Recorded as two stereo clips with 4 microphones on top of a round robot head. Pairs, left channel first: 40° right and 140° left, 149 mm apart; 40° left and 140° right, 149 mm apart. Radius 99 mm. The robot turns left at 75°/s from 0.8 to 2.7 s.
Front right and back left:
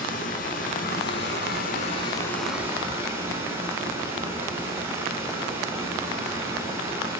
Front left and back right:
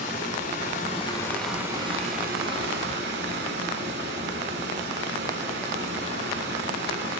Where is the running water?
Straight ahead, 2 m; by 7.2 s 145° right, 2 m.